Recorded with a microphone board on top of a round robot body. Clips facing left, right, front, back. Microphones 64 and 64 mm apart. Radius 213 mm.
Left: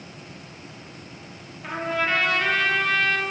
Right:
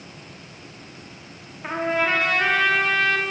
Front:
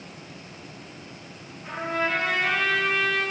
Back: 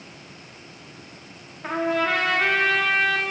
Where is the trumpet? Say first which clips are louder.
Right 3 dB, back 4 dB; 155° right, 0.9 m.